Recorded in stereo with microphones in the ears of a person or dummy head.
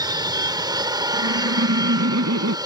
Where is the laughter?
90° right.